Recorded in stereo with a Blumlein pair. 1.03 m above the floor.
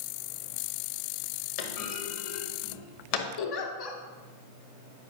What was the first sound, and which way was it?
A clunk, 45° left.